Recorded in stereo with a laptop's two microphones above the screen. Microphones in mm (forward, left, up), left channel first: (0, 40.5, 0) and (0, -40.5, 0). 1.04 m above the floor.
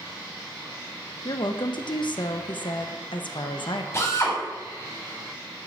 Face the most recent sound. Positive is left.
turn(degrees=35)  # may be behind; listen again after turning